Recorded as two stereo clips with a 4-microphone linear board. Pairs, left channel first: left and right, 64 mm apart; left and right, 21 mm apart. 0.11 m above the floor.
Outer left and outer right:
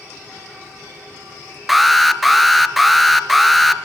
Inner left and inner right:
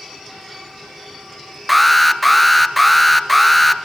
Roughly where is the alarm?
Centre.